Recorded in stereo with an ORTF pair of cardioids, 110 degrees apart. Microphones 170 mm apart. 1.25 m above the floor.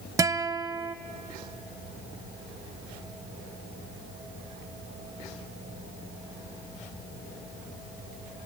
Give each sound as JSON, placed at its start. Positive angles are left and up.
{"t": 0.2, "sound": "a guitar", "azimuth_deg": -20, "distance_m": 0.7}